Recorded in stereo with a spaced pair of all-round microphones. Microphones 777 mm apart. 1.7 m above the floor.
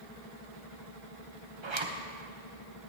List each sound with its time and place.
1.6 s a zipper: 35° right (ahead or behind), 1.0 m